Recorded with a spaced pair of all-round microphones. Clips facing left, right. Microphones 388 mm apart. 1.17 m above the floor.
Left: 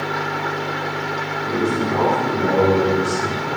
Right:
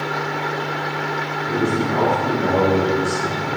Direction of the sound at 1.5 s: 65° left (ahead or behind).